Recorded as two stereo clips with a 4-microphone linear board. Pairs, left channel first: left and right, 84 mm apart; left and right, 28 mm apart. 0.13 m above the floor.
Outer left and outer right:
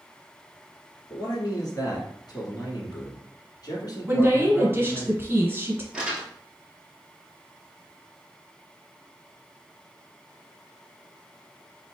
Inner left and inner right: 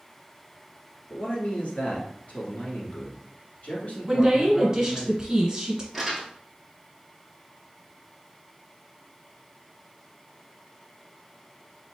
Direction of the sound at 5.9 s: 10° right (ahead or behind).